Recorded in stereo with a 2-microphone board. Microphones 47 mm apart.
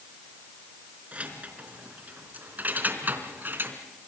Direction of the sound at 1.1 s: 30° right (ahead or behind).